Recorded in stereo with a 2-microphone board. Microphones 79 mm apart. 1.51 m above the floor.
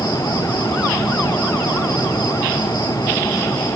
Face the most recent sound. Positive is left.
turn(degrees=70)  # may be behind; listen again after turning